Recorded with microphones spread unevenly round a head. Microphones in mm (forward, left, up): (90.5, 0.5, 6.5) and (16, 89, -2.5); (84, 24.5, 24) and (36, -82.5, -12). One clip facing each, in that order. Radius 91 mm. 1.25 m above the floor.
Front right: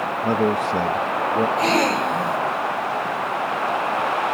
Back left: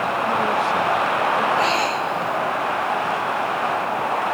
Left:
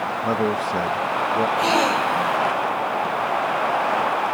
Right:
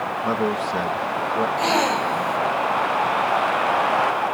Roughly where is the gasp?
Ahead.